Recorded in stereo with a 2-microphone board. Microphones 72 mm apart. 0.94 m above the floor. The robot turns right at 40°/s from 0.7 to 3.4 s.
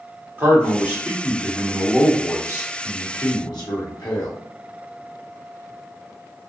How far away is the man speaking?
About 1.4 m.